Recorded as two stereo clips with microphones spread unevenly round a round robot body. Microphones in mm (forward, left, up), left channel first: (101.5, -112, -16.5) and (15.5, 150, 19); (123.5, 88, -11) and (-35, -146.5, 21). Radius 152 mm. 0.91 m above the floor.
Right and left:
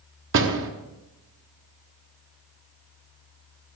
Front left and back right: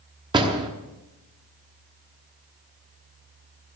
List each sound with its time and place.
0.3 s a door slam: 160° left, 1.1 m